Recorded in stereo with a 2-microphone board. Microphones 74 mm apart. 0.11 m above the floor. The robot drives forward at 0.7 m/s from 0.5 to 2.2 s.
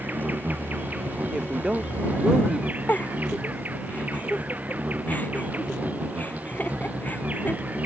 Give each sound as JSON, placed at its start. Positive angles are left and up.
{"t": 0.0, "sound": "an insect", "side_deg": -20}
{"t": 1.3, "sound": "a woman speaking", "side_deg": -10}
{"t": 2.9, "sound": "a giggle", "side_deg": 25}